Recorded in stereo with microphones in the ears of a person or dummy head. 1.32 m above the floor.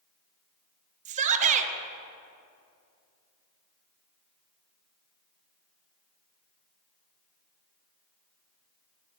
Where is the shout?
40° right (ahead or behind), 1.0 m.